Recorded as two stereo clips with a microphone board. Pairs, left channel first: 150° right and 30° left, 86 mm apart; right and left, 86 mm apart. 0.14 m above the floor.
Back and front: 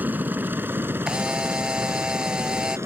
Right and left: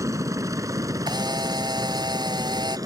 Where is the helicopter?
85° left; by 2.9 s 75° left.